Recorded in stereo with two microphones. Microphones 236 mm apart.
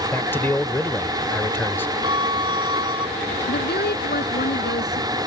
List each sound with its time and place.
0.1 s a man speaking: 10° left (ahead or behind)
2.0 s a violin: 75° left (ahead or behind)
3.5 s a woman speaking: 45° left (ahead or behind)